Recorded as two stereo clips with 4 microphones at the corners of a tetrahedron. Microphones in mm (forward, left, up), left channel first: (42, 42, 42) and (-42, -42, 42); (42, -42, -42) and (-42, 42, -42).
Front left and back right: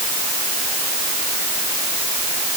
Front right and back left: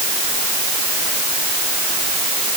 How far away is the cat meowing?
No cat meowing in this recording.